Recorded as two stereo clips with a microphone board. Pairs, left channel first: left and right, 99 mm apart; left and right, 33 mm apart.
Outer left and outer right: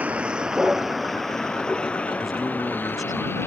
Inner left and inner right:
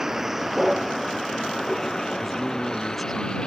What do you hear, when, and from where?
0.0 s a vehicle: 15° right (ahead or behind); by 3.5 s 25° left (ahead or behind)
2.2 s a man speaking: centre (ahead or behind)